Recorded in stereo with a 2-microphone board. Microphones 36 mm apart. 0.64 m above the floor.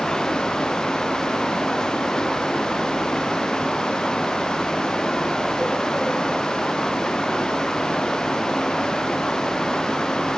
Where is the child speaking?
No child speaking in this recording.